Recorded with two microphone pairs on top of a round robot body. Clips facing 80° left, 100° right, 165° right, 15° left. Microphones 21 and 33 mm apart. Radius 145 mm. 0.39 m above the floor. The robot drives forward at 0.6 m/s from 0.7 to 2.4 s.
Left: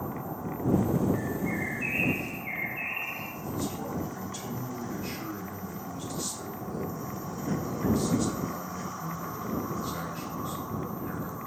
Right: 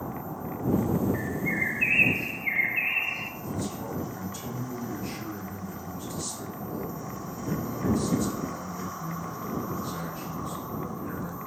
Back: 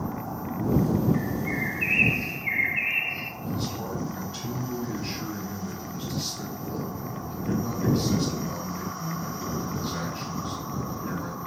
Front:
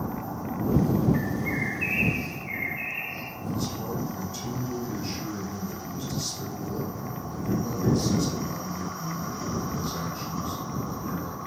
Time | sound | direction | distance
1.1 | a bird | 45° right | 0.7 m
3.4 | a man speaking | 130° left | 2 m